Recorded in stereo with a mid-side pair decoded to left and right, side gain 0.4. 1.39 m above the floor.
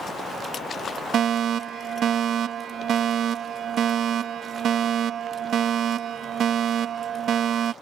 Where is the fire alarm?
65° right.